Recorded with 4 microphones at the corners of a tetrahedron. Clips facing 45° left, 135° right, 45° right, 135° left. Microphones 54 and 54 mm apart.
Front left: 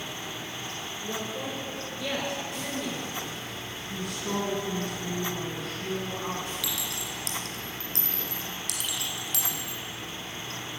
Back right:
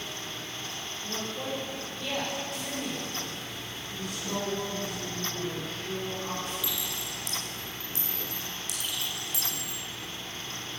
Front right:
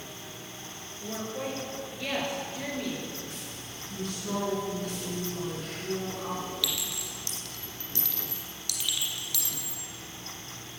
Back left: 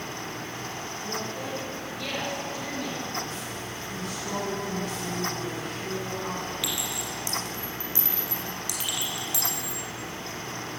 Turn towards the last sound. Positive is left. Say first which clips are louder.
# front left 1 dB, back left 3 dB
turn(degrees=65)